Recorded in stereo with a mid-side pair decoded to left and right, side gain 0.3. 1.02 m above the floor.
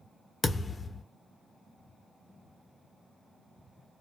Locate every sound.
0.4 s a thud: 45° left, 1.2 m